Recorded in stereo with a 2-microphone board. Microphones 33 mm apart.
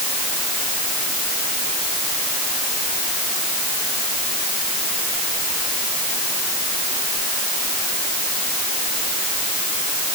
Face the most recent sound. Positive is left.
No sound to turn to.